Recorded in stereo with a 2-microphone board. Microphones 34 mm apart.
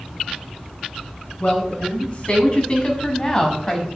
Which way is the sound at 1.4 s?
40° left (ahead or behind).